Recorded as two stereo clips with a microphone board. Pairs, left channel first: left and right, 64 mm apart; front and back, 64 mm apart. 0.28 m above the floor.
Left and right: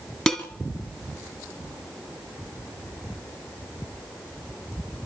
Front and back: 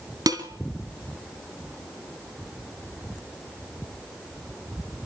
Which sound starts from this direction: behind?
Dishes clattering, at 0.3 s.